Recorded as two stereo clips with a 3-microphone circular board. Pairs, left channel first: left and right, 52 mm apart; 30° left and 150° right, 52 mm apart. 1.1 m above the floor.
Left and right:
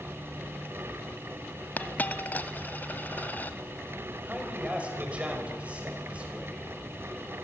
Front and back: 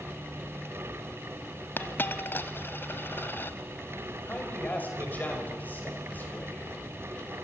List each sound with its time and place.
1.8 s a dropped coin: 50° left, 1.3 m
4.2 s a man speaking: 25° right, 6 m